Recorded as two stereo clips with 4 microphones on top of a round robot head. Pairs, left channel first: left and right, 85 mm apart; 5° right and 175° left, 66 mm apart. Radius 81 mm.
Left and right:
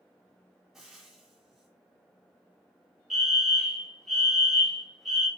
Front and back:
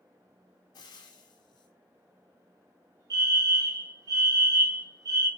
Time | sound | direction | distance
0.7 | frying | 5° right | 1.6 m
3.1 | a fire alarm | straight behind | 3 m